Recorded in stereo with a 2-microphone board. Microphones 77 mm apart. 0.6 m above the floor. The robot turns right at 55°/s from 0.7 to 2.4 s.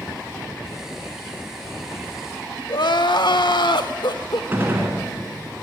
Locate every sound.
2.7 s crying: 70° left (ahead or behind), 0.7 m
4.5 s a gunshot: 30° right (ahead or behind), 3 m